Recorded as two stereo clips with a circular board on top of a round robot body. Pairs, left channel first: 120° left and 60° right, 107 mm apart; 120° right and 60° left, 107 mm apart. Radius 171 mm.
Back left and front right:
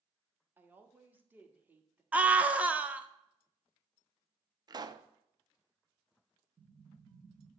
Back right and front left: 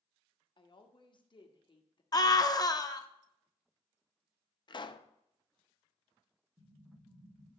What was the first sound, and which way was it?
A woman speaking, 130° right.